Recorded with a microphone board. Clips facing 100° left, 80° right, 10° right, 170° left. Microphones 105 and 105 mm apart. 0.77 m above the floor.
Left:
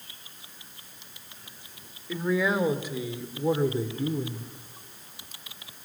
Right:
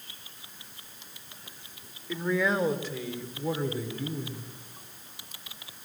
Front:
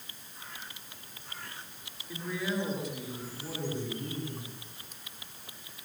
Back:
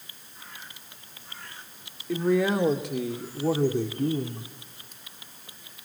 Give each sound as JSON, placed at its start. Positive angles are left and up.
{"t": 2.1, "sound": "a man speaking", "azimuth_deg": -170, "distance_m": 2.5}